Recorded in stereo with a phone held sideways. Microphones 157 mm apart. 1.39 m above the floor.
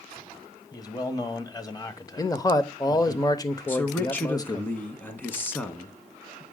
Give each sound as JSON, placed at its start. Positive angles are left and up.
{"t": 0.7, "sound": "a man speaking", "side_deg": 25, "distance_m": 1.0}
{"t": 2.2, "sound": "a man speaking", "side_deg": 25, "distance_m": 0.8}
{"t": 3.7, "sound": "a man speaking", "side_deg": 15, "distance_m": 1.0}